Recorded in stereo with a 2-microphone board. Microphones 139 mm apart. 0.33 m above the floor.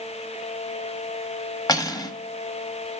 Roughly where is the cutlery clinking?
Left.